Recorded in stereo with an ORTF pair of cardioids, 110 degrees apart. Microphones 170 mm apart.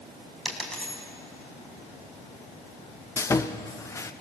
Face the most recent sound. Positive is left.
turn(degrees=20)